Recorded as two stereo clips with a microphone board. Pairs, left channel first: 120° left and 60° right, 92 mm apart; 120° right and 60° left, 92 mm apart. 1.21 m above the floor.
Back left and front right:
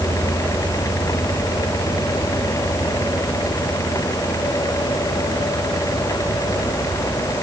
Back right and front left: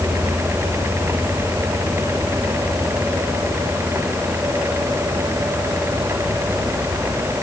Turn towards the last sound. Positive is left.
No sound to turn to.